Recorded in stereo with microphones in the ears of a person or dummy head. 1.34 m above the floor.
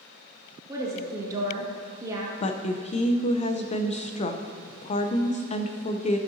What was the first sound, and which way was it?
A woman speaking, 20° right (ahead or behind).